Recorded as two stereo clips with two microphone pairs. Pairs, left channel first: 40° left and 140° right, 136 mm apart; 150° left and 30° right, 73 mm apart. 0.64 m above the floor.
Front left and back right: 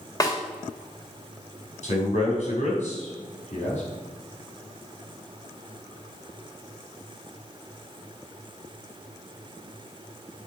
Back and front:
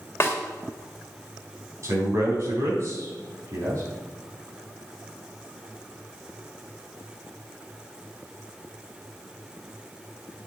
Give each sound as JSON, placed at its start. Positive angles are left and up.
{"t": 0.2, "sound": "a snare drum", "azimuth_deg": 100, "distance_m": 2.0}
{"t": 1.8, "sound": "a man speaking", "azimuth_deg": 15, "distance_m": 4.5}